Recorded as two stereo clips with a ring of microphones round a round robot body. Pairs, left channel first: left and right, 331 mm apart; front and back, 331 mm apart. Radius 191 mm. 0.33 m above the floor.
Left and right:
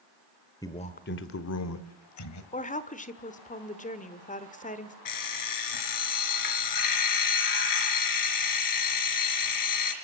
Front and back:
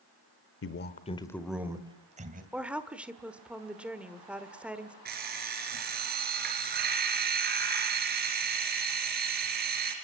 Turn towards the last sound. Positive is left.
turn(degrees=115)